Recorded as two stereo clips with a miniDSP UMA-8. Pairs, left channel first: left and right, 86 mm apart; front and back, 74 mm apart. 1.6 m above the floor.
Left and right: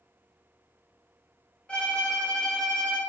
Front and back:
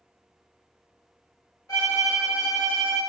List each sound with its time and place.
1.7 s a violin: 15° left, 0.9 m